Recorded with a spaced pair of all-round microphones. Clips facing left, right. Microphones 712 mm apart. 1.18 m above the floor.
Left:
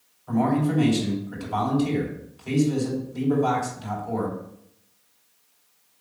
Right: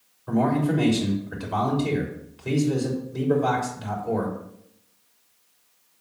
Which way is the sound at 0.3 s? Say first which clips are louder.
Even; 75° right (ahead or behind).